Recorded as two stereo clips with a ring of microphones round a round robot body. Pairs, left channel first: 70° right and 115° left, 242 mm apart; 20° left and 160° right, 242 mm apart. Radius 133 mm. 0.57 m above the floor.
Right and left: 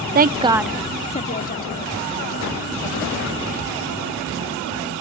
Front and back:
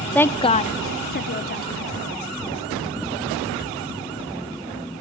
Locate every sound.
0.1 s a woman speaking: 105° left, 0.7 m; by 1.9 s 25° right, 1.6 m